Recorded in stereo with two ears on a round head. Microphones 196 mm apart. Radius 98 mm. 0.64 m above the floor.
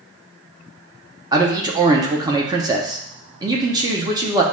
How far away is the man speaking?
About 0.6 m.